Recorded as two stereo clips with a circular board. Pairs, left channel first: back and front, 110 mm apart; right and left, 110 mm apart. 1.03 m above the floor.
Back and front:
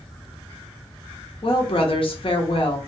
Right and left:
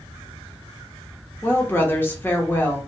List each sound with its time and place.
1.4 s a woman speaking: 160° right, 0.7 m